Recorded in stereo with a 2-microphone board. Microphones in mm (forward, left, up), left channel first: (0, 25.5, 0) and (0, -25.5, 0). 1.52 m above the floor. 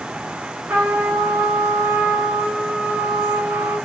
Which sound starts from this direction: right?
A trumpet, at 0.7 s.